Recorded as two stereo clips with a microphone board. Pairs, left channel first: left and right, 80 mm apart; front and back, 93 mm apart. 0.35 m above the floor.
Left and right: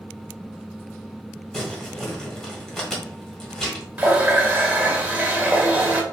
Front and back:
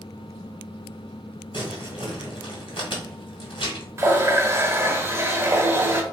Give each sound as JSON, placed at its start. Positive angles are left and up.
{"t": 1.5, "sound": "crumpling", "azimuth_deg": 5, "distance_m": 1.5}
{"t": 4.0, "sound": "a running tap", "azimuth_deg": -140, "distance_m": 0.6}